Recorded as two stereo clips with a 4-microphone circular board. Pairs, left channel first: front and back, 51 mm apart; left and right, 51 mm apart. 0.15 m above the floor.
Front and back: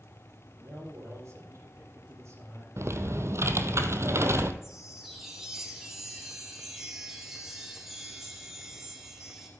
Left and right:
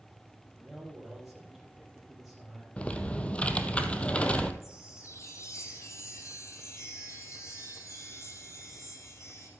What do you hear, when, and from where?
0.6 s a man speaking: straight behind, 5.5 m; by 2.7 s 175° right, 4.5 m
2.8 s typing on a keyboard: 155° left, 0.8 m
4.6 s a chime: 100° left, 5 m